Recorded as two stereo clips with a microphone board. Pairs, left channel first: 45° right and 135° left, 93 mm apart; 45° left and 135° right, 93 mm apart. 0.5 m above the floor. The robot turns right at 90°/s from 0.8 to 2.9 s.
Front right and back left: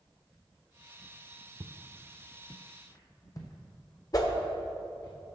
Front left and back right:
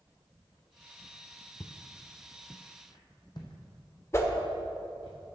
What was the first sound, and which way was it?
Footsteps, 90° left.